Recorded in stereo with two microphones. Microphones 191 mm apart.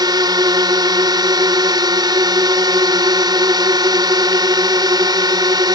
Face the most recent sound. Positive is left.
turn(degrees=-20)  # may be behind; listen again after turning